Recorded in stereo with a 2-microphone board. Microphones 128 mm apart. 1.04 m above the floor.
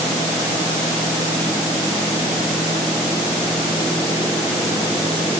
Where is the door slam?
No door slam in this recording.